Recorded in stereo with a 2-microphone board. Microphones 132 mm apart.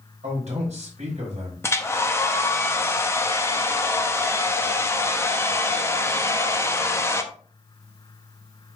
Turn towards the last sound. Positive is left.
turn(degrees=20)  # may be behind; listen again after turning